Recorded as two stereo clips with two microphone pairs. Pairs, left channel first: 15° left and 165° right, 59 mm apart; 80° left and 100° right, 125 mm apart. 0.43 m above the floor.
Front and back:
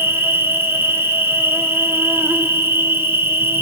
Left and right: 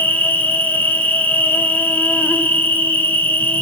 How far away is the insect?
About 0.9 m.